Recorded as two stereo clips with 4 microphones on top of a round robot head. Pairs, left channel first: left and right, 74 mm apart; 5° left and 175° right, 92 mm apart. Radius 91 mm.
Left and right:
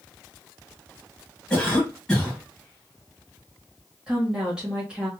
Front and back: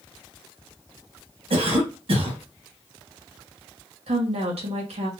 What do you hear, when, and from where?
1.5 s a cough: 170° left, 2.5 m
4.1 s a woman speaking: 170° right, 1.9 m